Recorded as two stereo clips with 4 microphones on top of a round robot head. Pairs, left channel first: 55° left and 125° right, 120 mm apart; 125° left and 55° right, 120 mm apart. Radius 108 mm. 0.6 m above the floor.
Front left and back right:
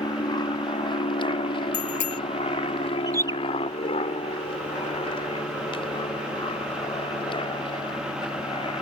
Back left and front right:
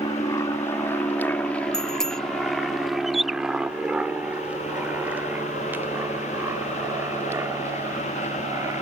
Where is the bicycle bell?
35° left.